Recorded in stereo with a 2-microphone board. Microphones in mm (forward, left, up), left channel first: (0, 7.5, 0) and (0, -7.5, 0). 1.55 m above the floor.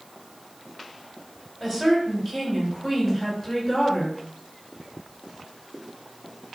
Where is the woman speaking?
Centre (ahead or behind), 5 m.